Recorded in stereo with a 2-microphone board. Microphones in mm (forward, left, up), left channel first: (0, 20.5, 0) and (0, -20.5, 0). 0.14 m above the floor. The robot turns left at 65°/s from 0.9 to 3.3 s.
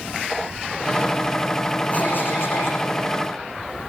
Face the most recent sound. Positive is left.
turn(degrees=50)